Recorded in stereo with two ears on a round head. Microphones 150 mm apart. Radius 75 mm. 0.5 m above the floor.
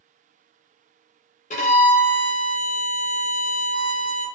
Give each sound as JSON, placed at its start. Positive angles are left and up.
{"t": 1.5, "sound": "a violin", "side_deg": 45, "distance_m": 0.6}